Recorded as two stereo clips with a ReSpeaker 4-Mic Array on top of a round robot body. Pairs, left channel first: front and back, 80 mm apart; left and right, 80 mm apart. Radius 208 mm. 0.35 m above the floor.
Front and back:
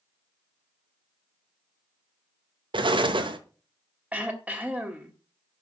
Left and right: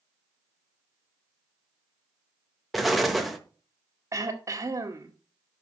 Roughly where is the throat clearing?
Behind right.